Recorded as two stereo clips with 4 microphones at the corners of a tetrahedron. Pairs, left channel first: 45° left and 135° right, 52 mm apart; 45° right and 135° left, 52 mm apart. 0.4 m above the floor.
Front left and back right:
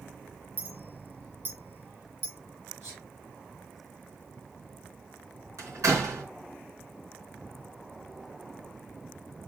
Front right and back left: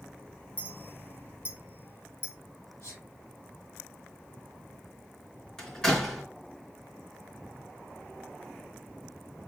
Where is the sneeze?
95° right, 5 m.